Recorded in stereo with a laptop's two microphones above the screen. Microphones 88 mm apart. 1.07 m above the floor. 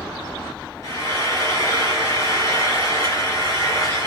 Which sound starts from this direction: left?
Frying, at 0.8 s.